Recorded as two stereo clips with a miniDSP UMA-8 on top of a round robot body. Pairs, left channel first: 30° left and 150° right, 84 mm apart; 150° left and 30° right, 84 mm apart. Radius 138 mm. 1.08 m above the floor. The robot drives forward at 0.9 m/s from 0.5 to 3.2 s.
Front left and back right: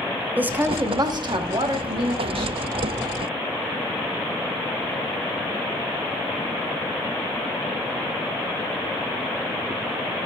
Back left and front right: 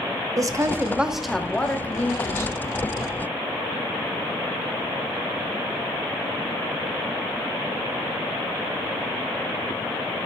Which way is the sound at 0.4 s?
80° right.